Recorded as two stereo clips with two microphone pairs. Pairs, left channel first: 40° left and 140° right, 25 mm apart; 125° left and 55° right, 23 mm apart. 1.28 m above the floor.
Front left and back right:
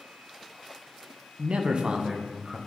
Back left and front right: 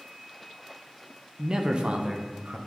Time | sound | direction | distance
1.4 | a man speaking | 110° right | 0.6 m